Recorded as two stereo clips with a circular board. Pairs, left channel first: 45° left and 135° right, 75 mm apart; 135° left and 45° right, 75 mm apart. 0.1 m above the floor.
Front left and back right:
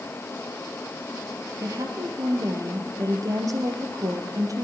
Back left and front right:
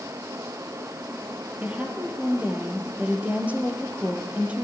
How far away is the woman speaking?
About 2.5 m.